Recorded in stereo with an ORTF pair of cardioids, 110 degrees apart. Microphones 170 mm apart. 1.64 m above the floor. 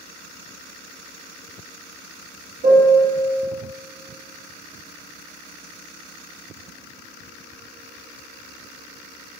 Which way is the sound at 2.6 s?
65° right.